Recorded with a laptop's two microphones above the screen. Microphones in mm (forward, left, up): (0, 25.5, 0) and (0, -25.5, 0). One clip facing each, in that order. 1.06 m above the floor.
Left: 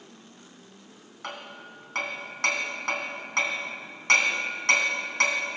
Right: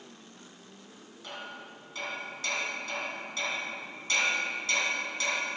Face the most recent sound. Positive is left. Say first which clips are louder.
# left 3 dB
turn(degrees=60)  # may be behind; listen again after turning